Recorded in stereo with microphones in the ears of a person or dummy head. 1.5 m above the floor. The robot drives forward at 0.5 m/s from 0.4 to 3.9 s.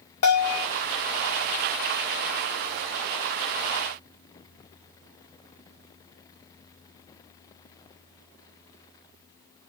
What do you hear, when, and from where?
0.2 s a bell: 55° left (ahead or behind), 1.8 m; by 0.7 s 60° left (ahead or behind), 1.7 m